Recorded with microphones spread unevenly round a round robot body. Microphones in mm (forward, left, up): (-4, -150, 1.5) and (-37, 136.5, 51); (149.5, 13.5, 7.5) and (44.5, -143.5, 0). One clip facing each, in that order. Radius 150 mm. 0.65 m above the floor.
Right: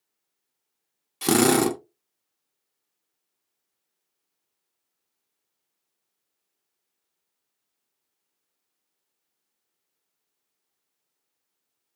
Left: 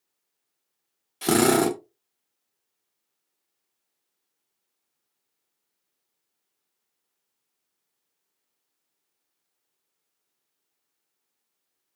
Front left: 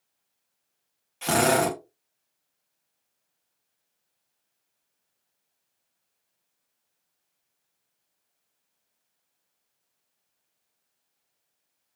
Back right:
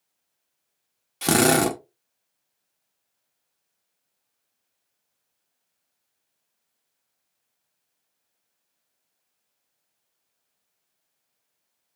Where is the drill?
140° right, 0.7 m.